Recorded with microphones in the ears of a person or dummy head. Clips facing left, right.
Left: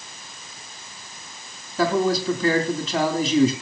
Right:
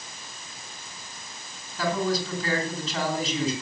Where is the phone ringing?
No phone ringing in this recording.